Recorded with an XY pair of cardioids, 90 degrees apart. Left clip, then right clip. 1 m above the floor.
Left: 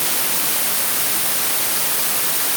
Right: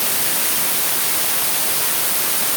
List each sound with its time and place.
Only background noise.